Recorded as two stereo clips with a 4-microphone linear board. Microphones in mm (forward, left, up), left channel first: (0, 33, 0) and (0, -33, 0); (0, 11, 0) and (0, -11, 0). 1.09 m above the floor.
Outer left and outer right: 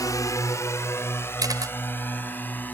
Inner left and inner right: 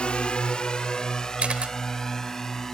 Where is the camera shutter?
65° right (ahead or behind).